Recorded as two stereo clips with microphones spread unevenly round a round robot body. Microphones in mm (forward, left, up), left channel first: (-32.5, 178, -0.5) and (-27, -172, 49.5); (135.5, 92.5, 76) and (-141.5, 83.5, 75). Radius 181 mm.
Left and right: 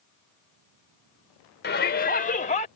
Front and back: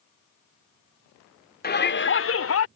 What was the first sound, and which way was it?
A shout, 45° left.